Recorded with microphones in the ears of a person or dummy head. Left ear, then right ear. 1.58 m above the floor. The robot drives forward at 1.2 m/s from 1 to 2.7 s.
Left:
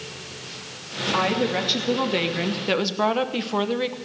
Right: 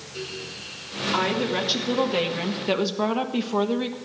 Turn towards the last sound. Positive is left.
turn(degrees=15)  # may be behind; listen again after turning